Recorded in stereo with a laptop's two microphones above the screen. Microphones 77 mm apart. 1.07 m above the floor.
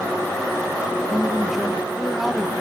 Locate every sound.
1.1 s a man speaking: 5° right (ahead or behind), 1.0 m